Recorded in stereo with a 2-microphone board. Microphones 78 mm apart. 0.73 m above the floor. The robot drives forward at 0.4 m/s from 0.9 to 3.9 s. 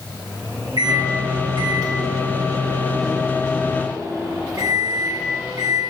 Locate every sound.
0.8 s a microwave: 70° right (ahead or behind), 1.3 m; by 5.8 s 50° right (ahead or behind), 1.6 m